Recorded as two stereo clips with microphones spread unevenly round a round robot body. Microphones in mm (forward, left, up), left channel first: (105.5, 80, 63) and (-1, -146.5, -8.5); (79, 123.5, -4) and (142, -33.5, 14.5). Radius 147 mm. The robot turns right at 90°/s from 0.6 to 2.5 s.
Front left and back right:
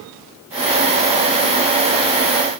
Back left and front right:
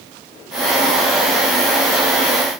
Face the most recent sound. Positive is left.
No sound to turn to.